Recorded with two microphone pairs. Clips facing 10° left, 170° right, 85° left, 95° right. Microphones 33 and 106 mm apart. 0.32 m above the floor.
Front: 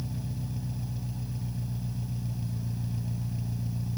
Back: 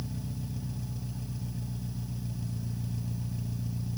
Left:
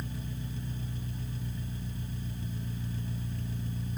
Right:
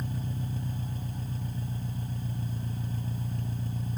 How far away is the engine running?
About 1.8 m.